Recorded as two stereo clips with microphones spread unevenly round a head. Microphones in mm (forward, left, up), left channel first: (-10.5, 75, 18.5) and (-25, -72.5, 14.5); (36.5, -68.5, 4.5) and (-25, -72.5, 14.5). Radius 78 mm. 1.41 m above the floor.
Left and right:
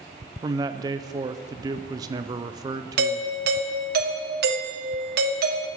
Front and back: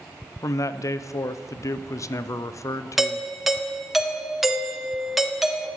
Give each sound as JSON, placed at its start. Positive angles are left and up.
{"t": 0.4, "sound": "a man speaking", "azimuth_deg": -30, "distance_m": 0.6}
{"t": 3.0, "sound": "a doorbell", "azimuth_deg": -85, "distance_m": 1.5}